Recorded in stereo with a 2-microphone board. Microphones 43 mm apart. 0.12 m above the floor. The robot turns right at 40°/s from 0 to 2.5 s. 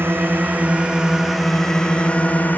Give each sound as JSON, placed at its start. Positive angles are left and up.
{"t": 0.0, "sound": "a drone", "side_deg": -60}